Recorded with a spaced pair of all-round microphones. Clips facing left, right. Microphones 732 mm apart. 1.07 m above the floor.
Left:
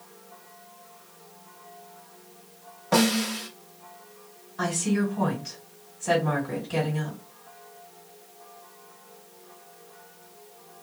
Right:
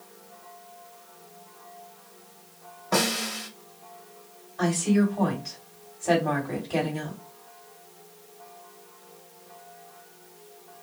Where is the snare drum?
20° left (ahead or behind), 0.8 m.